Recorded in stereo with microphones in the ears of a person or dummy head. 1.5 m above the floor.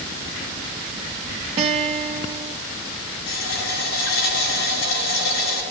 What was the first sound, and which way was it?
A guitar, 25° right (ahead or behind).